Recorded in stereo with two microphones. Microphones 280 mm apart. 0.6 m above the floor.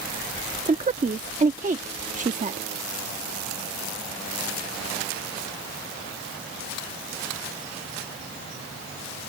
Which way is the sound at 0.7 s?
30° right (ahead or behind).